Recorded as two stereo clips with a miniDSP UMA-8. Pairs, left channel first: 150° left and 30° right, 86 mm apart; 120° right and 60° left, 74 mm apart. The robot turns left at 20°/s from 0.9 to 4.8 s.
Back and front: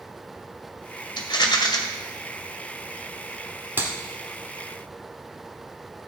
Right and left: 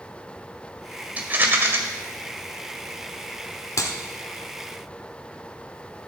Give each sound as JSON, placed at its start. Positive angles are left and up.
{"t": 1.2, "sound": "a rattle", "azimuth_deg": 130, "distance_m": 1.7}
{"t": 3.8, "sound": "a clap", "azimuth_deg": -90, "distance_m": 1.6}